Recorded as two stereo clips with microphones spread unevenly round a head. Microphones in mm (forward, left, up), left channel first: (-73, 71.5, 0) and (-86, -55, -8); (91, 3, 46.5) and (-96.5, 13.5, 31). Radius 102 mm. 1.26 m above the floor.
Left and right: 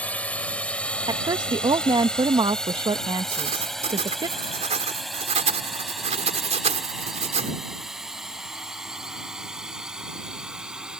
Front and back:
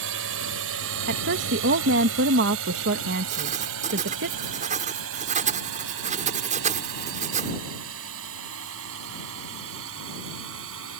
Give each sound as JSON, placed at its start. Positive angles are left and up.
{"t": 0.0, "sound": "a drone", "azimuth_deg": 165}
{"t": 1.1, "sound": "a woman speaking", "azimuth_deg": -150}
{"t": 3.3, "sound": "writing", "azimuth_deg": -130}